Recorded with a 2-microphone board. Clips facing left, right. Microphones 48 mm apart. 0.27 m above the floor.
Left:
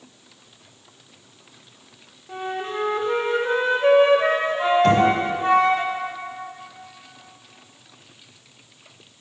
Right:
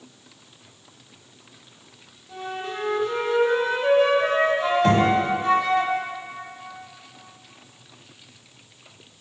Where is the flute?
35° left (ahead or behind), 0.7 m.